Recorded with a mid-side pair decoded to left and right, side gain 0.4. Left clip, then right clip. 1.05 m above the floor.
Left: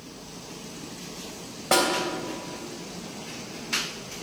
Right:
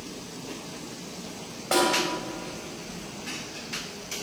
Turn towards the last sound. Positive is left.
turn(degrees=30)